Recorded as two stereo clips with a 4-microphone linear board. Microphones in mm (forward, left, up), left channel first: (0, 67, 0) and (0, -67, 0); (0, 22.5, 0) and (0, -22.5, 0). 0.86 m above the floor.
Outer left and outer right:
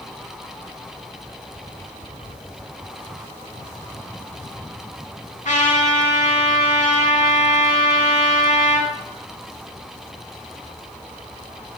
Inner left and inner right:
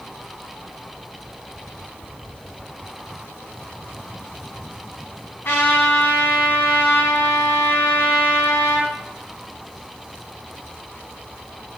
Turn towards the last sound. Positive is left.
turn(degrees=60)  # may be behind; listen again after turning